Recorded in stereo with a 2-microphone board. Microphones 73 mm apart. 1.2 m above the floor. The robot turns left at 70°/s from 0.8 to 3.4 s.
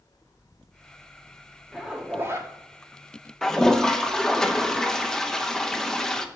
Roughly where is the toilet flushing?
Centre.